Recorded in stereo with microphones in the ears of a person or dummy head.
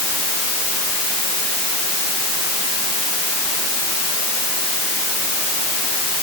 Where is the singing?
I don't hear singing.